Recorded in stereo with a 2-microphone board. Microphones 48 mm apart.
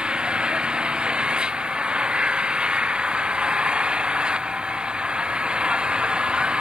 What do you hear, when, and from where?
0.0 s an engine running: 20° right (ahead or behind)